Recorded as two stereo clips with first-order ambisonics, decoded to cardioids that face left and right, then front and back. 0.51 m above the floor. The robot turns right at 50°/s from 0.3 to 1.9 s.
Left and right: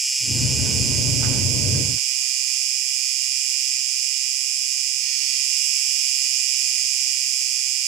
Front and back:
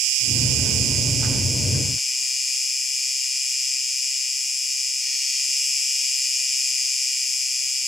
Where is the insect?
165° right, 1.0 m; by 7.9 s 85° right, 1.0 m.